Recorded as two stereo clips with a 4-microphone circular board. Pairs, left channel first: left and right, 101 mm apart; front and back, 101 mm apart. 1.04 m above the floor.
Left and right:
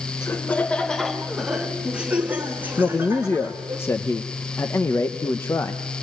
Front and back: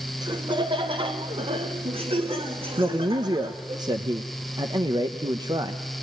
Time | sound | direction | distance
0.2 | laughter | 145° left | 1.0 m
2.8 | a man speaking | 150° left | 1.1 m